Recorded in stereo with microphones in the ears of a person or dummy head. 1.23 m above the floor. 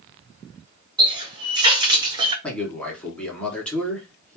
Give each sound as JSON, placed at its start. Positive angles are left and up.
{"t": 1.0, "sound": "a running tap", "side_deg": -25, "distance_m": 0.7}
{"t": 2.4, "sound": "a man speaking", "side_deg": 10, "distance_m": 0.7}